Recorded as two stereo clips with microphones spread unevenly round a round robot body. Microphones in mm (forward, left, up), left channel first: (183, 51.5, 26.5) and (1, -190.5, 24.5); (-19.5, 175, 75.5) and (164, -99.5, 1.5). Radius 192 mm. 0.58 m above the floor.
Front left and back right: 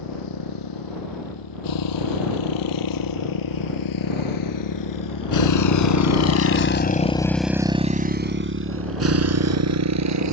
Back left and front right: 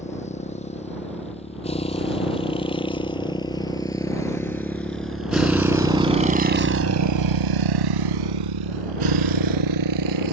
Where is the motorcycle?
55° left; by 10.3 s 95° right.